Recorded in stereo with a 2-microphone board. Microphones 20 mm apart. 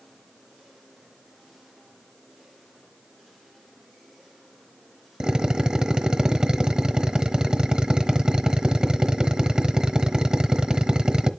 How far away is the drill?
About 0.9 m.